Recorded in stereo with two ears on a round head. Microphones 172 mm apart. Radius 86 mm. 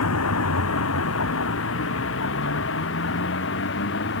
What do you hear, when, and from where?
0.0 s a vehicle: 85° left; by 4.2 s 60° left (ahead or behind)